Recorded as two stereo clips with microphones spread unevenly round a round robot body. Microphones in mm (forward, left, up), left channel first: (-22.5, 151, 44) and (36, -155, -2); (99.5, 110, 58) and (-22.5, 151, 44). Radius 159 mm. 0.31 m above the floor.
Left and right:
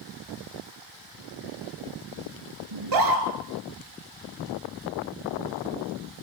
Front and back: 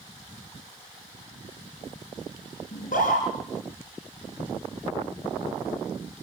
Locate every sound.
2.7 s a scream: 65° right, 4 m